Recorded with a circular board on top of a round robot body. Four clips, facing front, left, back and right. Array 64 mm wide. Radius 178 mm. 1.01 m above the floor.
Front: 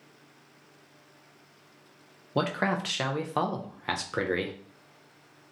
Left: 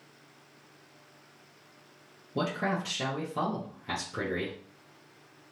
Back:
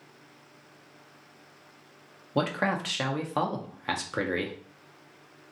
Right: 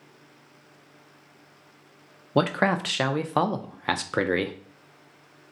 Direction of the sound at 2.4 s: 85° right.